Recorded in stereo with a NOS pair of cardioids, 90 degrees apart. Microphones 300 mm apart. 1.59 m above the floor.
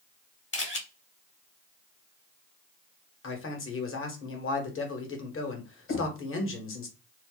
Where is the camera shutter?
40° left, 1.5 m.